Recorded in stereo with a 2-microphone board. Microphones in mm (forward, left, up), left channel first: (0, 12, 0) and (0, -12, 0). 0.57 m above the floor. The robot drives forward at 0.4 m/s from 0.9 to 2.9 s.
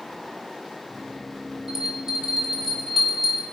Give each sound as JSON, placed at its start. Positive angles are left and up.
{"t": 1.7, "sound": "a bell", "side_deg": -20, "distance_m": 2.0}